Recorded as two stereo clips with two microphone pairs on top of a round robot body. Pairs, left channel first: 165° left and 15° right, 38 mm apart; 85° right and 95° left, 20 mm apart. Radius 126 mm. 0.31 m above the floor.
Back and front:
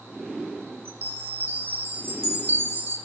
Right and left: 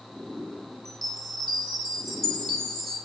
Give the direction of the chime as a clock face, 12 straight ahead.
1 o'clock.